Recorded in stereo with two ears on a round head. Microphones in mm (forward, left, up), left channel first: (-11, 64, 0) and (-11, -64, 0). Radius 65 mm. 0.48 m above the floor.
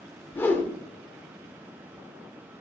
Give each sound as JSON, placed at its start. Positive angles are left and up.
{"t": 0.3, "sound": "a whoosh", "side_deg": 15, "distance_m": 1.4}